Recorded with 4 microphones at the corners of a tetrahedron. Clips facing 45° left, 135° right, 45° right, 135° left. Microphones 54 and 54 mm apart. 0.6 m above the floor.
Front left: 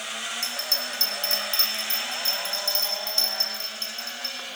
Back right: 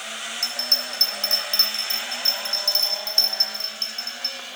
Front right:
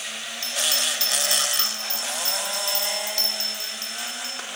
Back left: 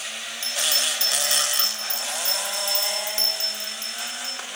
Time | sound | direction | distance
0.4 | a bell | 165° right | 4 m